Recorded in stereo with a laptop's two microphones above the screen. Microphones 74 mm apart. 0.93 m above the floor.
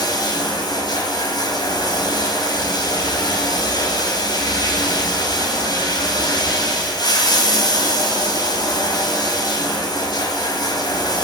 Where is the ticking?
I don't hear ticking.